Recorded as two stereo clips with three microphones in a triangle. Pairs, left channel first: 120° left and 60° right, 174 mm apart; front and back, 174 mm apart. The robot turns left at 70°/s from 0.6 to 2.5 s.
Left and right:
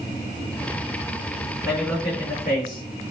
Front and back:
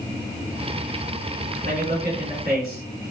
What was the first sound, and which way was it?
A man speaking, 145° right.